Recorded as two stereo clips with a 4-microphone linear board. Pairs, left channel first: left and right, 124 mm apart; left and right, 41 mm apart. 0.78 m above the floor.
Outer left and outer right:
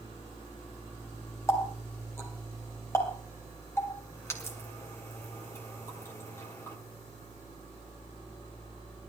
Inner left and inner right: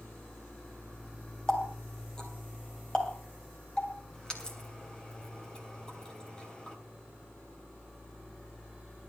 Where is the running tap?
20° left (ahead or behind), 3 m.